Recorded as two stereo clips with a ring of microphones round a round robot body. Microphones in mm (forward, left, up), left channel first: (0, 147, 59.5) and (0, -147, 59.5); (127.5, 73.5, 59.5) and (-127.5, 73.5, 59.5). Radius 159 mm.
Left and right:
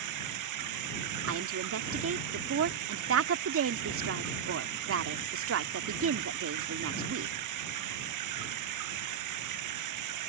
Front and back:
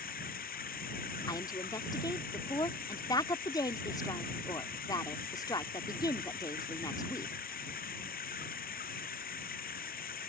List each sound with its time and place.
0.0 s running water: 60° right
1.3 s a woman speaking: 70° right